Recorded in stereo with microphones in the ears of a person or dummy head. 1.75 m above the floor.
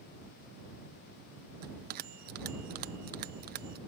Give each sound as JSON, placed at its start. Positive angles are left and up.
{"t": 1.6, "sound": "a bell", "side_deg": -45}